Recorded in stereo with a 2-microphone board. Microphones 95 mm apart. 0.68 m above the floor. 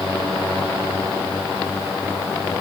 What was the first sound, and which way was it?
Only background noise.